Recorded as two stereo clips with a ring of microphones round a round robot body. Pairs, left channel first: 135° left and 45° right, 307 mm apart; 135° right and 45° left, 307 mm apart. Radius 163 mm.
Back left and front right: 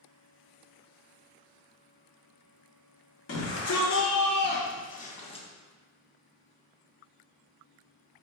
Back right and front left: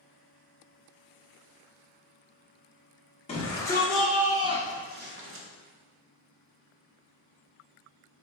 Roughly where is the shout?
Behind.